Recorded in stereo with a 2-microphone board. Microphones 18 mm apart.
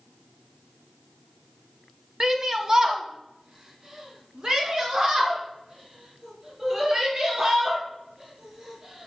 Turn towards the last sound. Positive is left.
turn(degrees=-40)  # may be behind; listen again after turning